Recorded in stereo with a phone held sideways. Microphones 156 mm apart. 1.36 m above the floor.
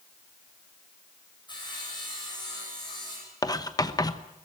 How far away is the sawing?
About 8 m.